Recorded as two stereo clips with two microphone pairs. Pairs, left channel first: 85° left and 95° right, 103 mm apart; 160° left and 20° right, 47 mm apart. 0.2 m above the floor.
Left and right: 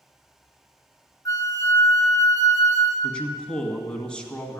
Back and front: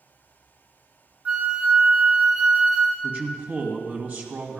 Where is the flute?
40° left, 1.3 m.